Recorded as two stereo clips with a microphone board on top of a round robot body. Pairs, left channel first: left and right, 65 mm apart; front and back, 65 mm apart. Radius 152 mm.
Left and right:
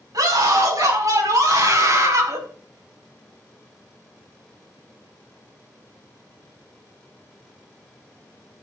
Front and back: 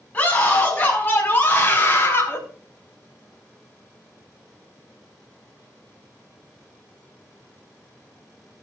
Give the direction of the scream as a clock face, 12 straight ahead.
2 o'clock.